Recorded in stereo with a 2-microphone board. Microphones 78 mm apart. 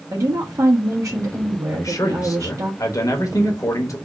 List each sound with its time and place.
0.1 s a woman speaking: 45° right (ahead or behind), 1.2 m
1.7 s a man speaking: 45° left (ahead or behind), 1.1 m